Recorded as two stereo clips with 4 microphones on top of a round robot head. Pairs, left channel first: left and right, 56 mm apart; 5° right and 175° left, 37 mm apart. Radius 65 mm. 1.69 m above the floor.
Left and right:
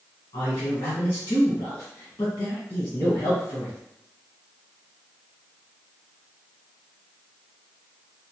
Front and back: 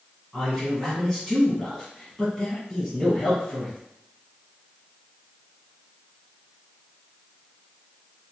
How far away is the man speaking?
About 1.2 m.